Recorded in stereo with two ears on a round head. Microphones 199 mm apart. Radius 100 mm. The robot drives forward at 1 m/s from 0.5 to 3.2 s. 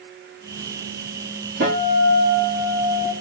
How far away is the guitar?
About 3 m.